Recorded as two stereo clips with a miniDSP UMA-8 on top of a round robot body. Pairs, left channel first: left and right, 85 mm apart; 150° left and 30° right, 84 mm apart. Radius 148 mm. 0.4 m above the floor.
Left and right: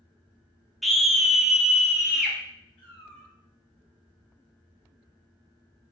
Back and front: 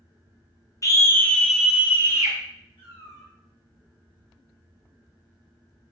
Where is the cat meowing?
160° left, 1.9 m.